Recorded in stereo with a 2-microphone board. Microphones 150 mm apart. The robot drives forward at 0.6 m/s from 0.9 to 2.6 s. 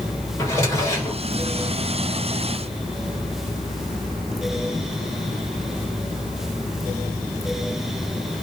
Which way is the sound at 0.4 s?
20° left (ahead or behind).